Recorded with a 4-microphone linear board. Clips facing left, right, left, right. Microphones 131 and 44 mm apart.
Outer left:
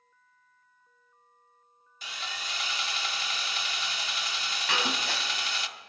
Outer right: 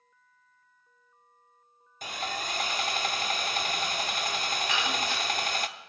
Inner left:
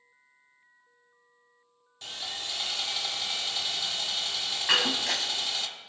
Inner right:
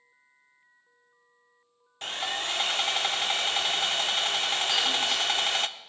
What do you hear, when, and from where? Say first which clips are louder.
2.0 s sawing: outer right 6 dB, inner right 7 dB; 50° right (ahead or behind), 0.6 m
4.7 s breaking glass: outer left 3 dB, inner left 4 dB; 85° left, 3 m